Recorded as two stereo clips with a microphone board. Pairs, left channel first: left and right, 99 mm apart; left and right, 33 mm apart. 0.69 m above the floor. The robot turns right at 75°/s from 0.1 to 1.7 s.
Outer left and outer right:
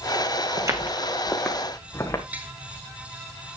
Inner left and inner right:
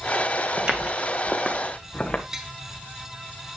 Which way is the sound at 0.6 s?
35° right (ahead or behind).